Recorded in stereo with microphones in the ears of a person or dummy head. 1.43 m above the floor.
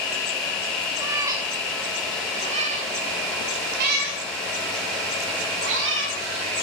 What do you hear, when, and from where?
1.0 s a cat meowing: 25° right (ahead or behind), 2.5 m; by 6.2 s 65° right (ahead or behind), 2.5 m